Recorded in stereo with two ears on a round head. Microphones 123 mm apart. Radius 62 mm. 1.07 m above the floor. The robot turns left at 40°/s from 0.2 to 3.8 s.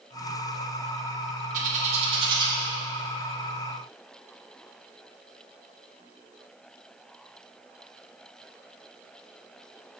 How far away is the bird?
About 1.2 m.